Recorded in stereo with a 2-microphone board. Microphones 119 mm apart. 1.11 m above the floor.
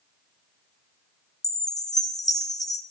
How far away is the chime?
About 0.7 m.